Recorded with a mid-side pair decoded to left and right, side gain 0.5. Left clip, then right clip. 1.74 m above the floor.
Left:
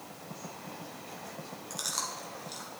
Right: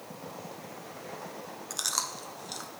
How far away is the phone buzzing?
I don't hear a phone buzzing.